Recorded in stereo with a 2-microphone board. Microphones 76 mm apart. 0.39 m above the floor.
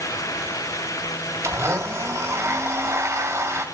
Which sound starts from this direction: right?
A blender, at 1.4 s.